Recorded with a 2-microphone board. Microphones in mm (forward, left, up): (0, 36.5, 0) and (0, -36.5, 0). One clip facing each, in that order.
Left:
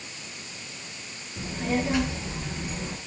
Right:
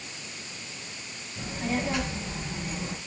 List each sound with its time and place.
1.4 s a child speaking: 25° left (ahead or behind), 5 m; by 3.0 s 15° left (ahead or behind), 4.5 m